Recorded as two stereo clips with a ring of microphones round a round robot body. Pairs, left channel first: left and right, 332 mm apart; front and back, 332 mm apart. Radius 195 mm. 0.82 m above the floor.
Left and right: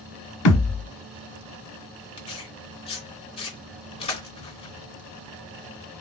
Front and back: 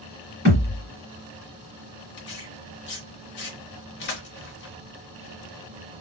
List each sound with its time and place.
0.5 s a thud: 65° left, 1.3 m
2.2 s tearing paper: 30° left, 0.6 m